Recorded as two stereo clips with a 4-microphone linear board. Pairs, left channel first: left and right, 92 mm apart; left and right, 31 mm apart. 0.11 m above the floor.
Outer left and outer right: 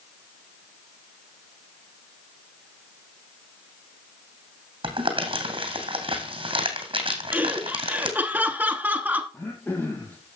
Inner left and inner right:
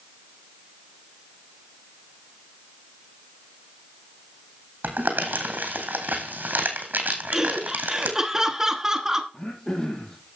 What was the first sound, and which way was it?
Crumpling, 80° right.